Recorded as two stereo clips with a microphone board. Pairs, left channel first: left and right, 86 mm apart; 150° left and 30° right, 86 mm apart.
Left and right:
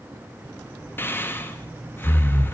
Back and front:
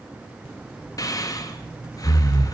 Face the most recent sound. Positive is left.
turn(degrees=145)